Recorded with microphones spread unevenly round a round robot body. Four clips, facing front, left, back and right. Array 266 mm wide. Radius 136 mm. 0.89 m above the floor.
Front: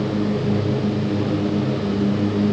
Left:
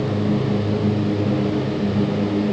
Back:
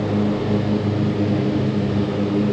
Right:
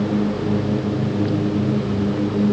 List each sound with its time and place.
Only background noise.